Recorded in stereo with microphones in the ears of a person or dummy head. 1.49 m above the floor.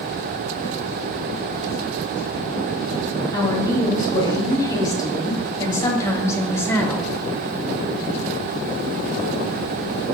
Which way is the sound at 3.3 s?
20° left (ahead or behind).